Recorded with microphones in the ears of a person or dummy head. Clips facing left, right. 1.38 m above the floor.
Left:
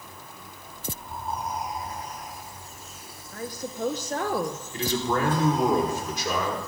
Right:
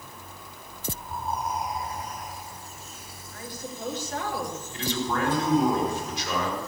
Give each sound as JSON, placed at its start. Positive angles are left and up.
{"t": 3.3, "sound": "a woman speaking", "side_deg": 40, "distance_m": 1.0}
{"t": 4.7, "sound": "a man speaking", "side_deg": 40, "distance_m": 4.5}